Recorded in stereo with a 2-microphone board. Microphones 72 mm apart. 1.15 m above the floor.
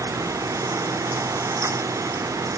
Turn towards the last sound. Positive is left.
No sound to turn to.